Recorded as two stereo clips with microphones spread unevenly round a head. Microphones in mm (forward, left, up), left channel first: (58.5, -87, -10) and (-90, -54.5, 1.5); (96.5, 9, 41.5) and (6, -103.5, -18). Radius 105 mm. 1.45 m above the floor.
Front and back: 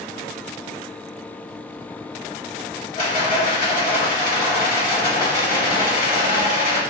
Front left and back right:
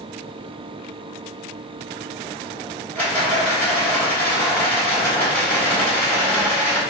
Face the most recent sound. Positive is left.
turn(degrees=0)